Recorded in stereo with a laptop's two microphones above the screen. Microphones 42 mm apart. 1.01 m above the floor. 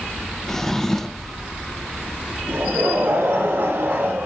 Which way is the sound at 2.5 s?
65° right (ahead or behind).